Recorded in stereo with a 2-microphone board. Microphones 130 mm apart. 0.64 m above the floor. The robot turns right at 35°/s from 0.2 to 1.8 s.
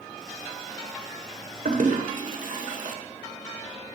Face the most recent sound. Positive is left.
turn(degrees=-75)  # may be behind; listen again after turning